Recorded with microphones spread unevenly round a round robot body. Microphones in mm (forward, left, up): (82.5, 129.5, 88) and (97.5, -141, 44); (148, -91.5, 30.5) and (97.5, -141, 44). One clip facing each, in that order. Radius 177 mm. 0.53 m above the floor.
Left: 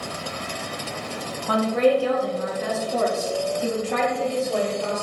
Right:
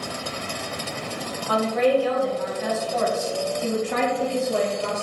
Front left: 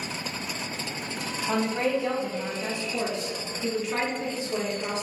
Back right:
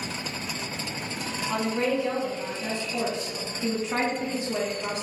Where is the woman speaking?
65° left, 1.3 m; by 5.0 s 125° right, 1.1 m.